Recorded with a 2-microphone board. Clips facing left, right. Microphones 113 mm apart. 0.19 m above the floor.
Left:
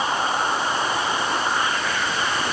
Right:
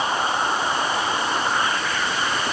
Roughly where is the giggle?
I don't hear a giggle.